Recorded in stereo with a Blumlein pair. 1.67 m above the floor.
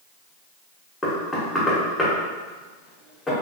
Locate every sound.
1.0 s knocking: 10° left, 1.3 m